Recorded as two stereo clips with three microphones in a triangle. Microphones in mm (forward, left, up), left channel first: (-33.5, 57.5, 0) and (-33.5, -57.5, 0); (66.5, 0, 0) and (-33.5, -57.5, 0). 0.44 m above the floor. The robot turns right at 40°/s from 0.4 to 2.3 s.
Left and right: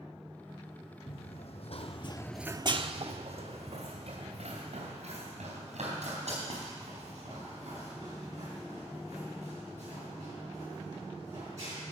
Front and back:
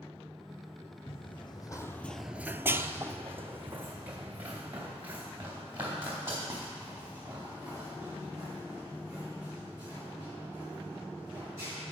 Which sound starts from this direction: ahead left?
Running footsteps, at 1.1 s.